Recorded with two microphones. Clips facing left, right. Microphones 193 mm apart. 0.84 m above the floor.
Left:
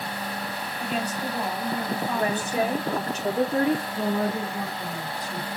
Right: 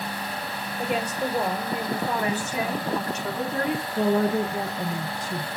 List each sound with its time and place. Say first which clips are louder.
0.8 s a woman speaking: right 3 dB; 75° right (ahead or behind), 2.5 m
2.1 s a woman speaking: left 2 dB; 30° left (ahead or behind), 1.4 m
4.0 s a woman speaking: right 4 dB; 45° right (ahead or behind), 0.7 m